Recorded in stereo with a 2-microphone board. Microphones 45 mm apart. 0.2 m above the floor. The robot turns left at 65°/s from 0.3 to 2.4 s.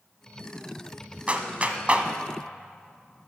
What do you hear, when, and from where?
1.3 s a clap: 30° right (ahead or behind), 1.2 m; by 2.1 s 25° right (ahead or behind), 1.2 m